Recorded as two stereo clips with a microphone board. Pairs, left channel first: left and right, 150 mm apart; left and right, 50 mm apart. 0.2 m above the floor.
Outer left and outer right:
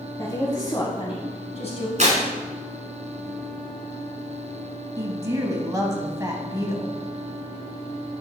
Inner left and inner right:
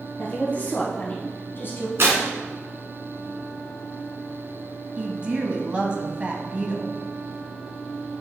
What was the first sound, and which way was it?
A woman speaking, 20° left (ahead or behind).